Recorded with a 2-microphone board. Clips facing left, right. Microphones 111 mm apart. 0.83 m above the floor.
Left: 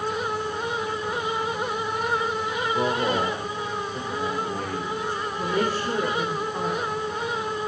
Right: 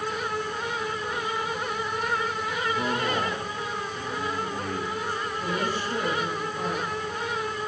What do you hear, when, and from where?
2.6 s a man speaking: 45° left (ahead or behind), 3 m
5.4 s a woman speaking: 85° left, 9 m